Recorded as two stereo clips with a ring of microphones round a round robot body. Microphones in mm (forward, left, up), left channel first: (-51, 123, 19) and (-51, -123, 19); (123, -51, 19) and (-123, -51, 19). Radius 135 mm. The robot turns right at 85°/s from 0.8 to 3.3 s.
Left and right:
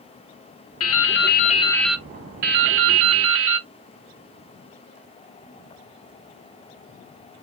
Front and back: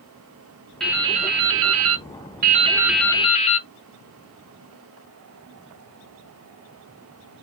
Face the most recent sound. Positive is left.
turn(degrees=-60)